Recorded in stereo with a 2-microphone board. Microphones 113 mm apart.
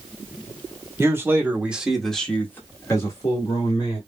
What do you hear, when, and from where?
1.0 s a man speaking: 20° right (ahead or behind), 1.6 m; by 4.0 s 35° left (ahead or behind), 2.0 m